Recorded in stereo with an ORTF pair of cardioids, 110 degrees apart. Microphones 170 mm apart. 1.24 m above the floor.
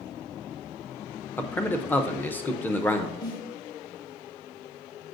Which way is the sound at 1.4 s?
10° left.